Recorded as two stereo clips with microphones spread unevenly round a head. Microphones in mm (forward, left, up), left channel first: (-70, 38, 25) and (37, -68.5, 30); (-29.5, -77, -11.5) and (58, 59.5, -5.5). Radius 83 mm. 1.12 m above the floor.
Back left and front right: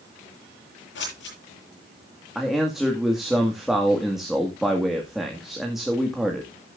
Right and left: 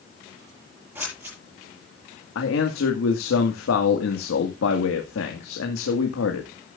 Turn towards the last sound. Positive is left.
turn(degrees=-130)